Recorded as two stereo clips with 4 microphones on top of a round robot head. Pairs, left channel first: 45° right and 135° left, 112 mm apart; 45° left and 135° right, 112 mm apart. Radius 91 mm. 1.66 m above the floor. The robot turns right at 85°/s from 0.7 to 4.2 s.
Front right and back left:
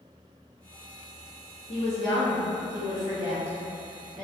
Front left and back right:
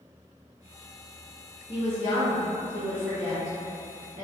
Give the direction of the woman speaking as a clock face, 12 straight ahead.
12 o'clock.